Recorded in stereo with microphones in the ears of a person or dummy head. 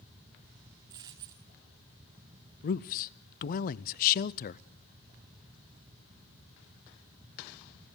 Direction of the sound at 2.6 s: 45° left (ahead or behind).